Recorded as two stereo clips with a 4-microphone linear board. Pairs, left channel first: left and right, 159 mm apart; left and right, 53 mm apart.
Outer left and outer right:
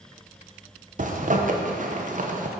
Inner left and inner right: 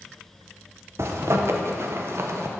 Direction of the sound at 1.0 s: 55° right (ahead or behind).